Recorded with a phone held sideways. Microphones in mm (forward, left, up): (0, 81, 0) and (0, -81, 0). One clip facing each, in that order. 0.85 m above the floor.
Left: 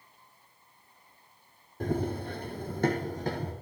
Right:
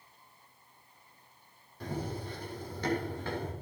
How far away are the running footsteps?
About 1.7 m.